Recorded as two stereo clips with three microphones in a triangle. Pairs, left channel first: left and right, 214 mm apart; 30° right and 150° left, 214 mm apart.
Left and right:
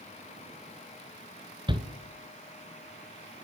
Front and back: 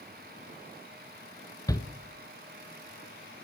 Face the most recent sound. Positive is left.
turn(degrees=-75)